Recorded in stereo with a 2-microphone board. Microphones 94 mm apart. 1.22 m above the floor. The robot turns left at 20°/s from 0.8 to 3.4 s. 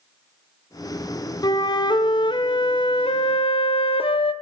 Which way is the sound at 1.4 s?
135° left.